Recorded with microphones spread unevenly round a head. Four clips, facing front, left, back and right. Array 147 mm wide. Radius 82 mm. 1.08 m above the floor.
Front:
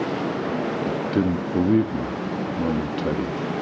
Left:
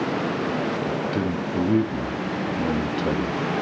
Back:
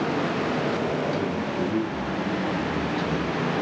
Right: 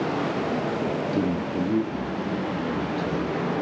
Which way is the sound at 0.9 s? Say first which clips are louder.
Even, front 3 dB; 15° right.